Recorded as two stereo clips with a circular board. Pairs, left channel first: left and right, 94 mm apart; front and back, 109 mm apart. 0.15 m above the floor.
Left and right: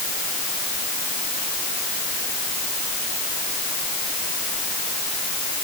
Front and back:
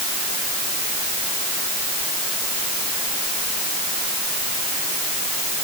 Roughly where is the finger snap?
No finger snap in this recording.